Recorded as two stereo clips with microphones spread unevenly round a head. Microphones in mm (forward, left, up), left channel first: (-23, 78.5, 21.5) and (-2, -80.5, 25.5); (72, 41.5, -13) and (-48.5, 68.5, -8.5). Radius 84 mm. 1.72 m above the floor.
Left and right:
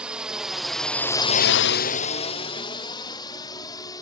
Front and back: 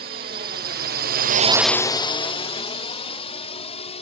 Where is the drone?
165° right; by 4.0 s 25° left.